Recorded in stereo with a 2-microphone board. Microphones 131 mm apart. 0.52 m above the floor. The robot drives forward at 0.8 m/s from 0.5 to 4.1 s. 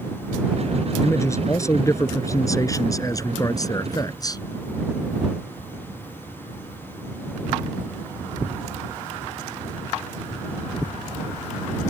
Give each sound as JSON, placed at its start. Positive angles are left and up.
{"t": 1.0, "sound": "a man speaking", "side_deg": 20}